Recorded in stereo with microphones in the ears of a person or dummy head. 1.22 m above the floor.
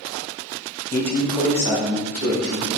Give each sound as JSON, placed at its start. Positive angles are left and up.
{"t": 0.9, "sound": "a man speaking", "side_deg": 20, "distance_m": 0.8}